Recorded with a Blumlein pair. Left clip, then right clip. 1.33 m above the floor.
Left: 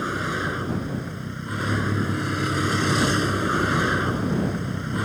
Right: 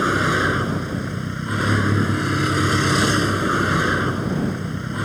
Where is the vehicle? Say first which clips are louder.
Right 7 dB; 25° right; by 5.0 s 5° right.